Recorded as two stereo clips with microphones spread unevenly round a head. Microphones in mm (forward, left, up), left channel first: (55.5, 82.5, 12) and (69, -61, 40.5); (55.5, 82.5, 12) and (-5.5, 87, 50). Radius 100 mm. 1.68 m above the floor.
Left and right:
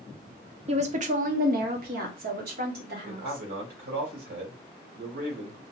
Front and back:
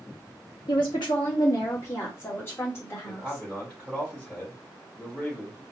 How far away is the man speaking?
About 1.8 m.